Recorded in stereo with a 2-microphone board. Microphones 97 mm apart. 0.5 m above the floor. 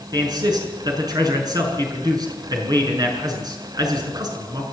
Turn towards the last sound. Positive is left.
turn(degrees=-45)  # may be behind; listen again after turning